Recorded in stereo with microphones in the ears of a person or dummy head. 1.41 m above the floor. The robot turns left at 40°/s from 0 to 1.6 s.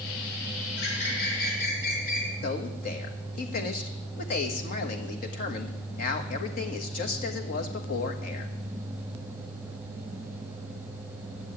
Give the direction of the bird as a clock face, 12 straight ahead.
9 o'clock.